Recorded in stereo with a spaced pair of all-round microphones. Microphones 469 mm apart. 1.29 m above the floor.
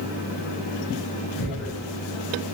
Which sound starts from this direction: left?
Tearing paper, at 1.4 s.